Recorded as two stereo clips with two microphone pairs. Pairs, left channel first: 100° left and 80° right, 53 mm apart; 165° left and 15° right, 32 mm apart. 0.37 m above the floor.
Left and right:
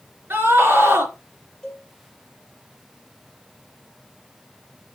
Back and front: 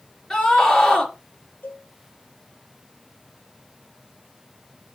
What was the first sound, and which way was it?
A scream, 130° right.